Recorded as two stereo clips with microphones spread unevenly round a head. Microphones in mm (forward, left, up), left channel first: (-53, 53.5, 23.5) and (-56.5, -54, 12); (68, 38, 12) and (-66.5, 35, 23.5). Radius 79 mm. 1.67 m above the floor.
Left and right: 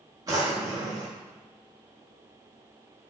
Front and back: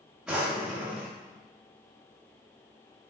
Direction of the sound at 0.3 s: 110° right.